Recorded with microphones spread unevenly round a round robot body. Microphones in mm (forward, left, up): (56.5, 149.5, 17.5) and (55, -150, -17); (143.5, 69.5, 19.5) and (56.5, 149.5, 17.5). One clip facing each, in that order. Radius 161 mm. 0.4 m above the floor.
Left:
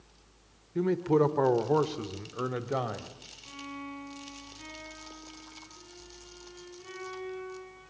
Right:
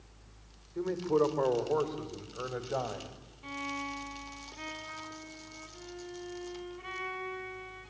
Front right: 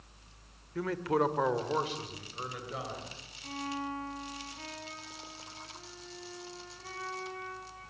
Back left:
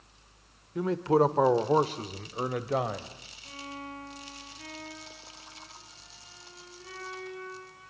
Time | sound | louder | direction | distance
0.8 | a man speaking | left 3 dB, back left 6 dB | 75° left | 1.6 m
3.4 | a violin | right 2 dB, front right 5 dB | 105° right | 3 m